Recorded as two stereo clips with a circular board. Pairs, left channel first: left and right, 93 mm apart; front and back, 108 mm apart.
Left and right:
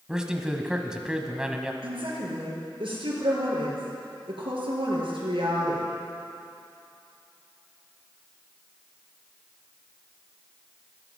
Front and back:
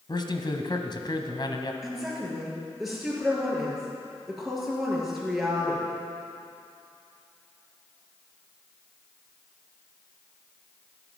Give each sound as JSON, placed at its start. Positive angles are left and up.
{"t": 0.1, "sound": "a man speaking", "azimuth_deg": -10, "distance_m": 1.3}
{"t": 1.8, "sound": "a woman speaking", "azimuth_deg": -90, "distance_m": 4.5}